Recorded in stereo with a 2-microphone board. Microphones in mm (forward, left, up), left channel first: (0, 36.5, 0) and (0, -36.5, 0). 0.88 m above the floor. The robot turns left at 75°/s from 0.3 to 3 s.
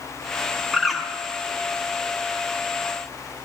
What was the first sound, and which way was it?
A bird, 10° right (ahead or behind).